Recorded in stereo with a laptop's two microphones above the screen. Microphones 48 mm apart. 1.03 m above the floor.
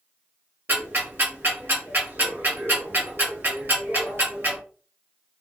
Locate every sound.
0.7 s ticking: 45° right (ahead or behind), 1.5 m